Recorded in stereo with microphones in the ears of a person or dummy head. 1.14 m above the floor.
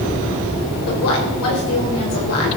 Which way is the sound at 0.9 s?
75° left (ahead or behind).